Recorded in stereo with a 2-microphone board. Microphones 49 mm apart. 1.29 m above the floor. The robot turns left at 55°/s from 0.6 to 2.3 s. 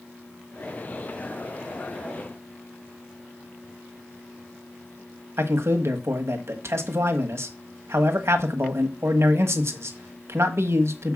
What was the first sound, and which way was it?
A man speaking, 60° right (ahead or behind).